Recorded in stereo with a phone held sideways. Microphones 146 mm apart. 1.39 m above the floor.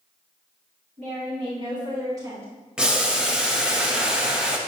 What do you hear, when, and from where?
1.0 s a woman speaking: 50° right (ahead or behind), 2 m; by 2.5 s 20° right (ahead or behind), 3.5 m
2.8 s boiling: 5° right (ahead or behind), 0.8 m